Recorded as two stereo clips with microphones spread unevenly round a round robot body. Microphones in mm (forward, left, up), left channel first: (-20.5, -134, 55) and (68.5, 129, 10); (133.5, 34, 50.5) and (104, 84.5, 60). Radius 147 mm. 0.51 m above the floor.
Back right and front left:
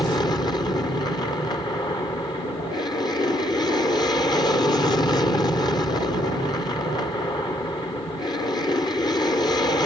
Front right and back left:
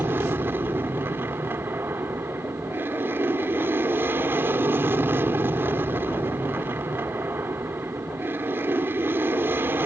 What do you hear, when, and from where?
0.0 s an aircraft: 170° left